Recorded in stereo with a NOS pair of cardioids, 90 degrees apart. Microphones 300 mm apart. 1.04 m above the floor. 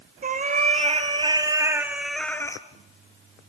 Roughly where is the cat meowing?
Ahead right.